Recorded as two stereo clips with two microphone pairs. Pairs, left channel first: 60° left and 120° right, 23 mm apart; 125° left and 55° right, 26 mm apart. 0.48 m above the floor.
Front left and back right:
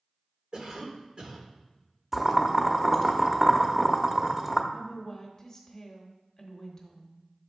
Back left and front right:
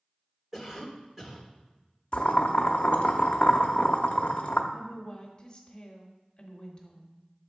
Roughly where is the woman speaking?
Left.